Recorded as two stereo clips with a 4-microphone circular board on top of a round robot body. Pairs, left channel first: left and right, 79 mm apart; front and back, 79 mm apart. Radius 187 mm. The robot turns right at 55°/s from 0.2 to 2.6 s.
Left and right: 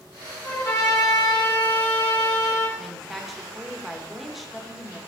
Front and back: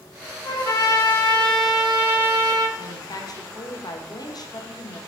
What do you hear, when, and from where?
0.4 s a trumpet: 20° left, 3 m; by 2.7 s 140° left, 3 m
2.8 s a woman speaking: straight ahead, 1.5 m